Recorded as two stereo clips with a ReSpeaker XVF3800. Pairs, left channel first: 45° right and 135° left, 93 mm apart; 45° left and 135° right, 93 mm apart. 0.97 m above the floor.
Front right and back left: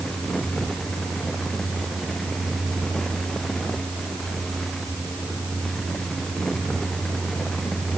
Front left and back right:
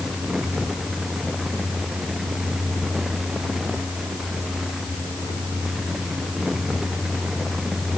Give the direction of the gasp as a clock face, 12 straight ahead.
No gasp in this recording.